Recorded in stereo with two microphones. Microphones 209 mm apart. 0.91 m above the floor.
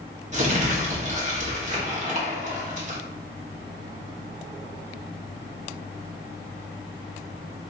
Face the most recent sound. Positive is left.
turn(degrees=-35)  # may be behind; listen again after turning